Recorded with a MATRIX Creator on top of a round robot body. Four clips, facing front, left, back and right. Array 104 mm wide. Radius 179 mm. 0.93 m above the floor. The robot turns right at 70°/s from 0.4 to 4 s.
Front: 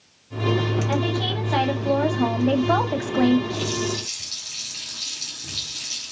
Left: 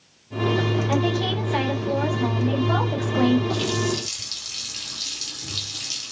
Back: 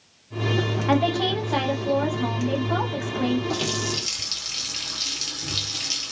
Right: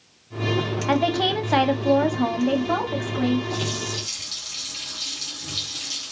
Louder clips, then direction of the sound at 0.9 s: Right 2 dB, back 3 dB; 130° right.